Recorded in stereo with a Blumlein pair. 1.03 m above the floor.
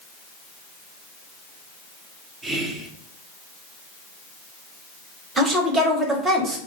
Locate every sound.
2.4 s whispering: 15° right, 0.6 m
5.4 s a woman speaking: 20° right, 0.8 m